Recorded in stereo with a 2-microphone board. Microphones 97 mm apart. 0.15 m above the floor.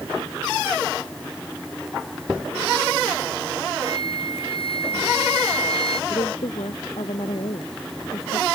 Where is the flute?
70° left (ahead or behind).